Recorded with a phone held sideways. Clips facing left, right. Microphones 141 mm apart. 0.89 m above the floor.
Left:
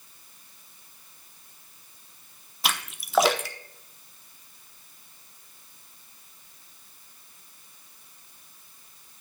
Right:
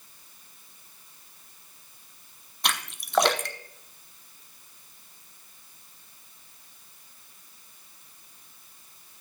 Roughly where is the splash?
Centre.